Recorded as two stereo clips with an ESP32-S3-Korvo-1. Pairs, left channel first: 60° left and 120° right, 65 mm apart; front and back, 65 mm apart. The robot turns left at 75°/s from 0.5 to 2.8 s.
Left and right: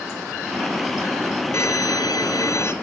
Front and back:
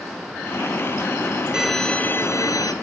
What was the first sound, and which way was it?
A violin, 100° left.